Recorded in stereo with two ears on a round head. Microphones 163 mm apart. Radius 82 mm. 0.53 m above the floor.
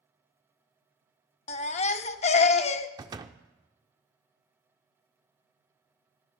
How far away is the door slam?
About 0.7 m.